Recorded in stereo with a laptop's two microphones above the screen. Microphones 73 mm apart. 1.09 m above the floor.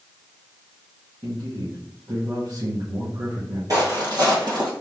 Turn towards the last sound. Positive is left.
turn(degrees=-65)  # may be behind; listen again after turning